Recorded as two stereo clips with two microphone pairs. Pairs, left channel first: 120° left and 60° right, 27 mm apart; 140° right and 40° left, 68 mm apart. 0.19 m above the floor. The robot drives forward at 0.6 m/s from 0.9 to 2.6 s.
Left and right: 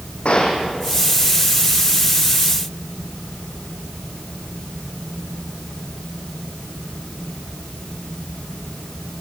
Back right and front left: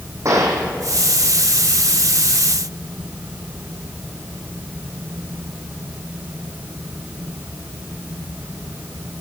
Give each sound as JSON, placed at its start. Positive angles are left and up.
{"t": 0.2, "sound": "a gunshot", "azimuth_deg": 75, "distance_m": 4.5}